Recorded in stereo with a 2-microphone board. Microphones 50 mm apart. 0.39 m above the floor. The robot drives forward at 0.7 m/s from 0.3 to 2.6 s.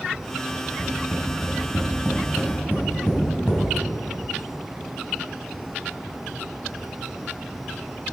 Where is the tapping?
60° left (ahead or behind), 2.5 m; by 3.6 s 50° left (ahead or behind), 3 m.